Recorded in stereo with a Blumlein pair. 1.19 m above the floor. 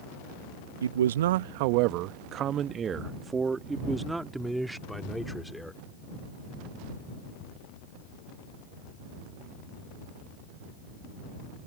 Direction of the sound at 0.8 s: 70° right.